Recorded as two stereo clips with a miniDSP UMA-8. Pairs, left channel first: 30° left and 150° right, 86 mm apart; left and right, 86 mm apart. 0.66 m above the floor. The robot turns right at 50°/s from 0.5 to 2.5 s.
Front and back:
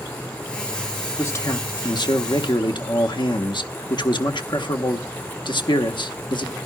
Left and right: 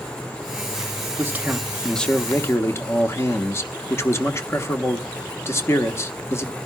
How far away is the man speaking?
About 1.1 m.